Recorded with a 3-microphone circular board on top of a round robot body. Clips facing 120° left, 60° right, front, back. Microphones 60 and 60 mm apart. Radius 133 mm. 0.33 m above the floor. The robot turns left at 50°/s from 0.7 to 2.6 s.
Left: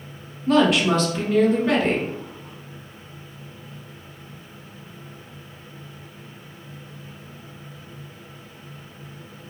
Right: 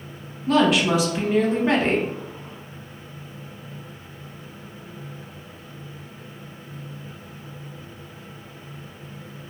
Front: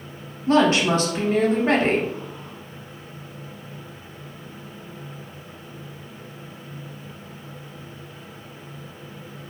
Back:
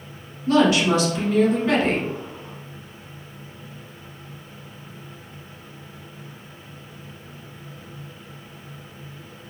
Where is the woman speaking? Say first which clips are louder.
Left 1 dB, even; 30° left, 1.0 m; by 2.1 s 40° right, 1.0 m.